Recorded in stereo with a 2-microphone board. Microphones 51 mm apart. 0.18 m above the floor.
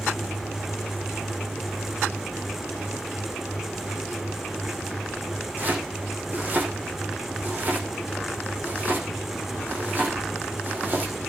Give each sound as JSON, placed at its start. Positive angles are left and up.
{"t": 5.6, "sound": "chopping", "side_deg": -35, "distance_m": 8.5}